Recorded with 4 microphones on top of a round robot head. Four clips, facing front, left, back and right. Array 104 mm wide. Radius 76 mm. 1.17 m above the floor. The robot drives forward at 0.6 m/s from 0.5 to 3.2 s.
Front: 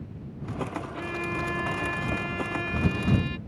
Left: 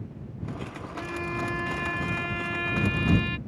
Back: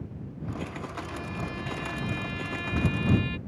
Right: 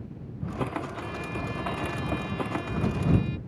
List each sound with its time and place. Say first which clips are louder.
0.9 s a violin: left 2 dB, front 6 dB; 35° left; by 3.4 s 75° left